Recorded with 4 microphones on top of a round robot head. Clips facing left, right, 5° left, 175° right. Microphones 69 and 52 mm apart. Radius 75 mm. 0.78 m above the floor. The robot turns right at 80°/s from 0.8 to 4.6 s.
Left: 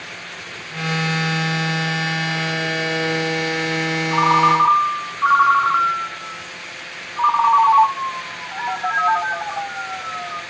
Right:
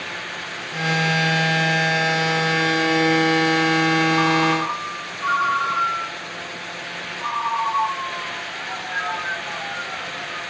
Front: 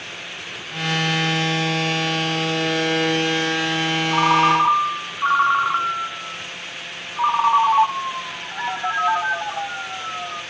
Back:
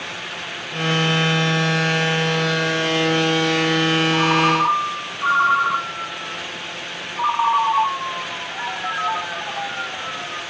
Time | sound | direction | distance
4.1 | a ringtone | 35° left | 1.8 m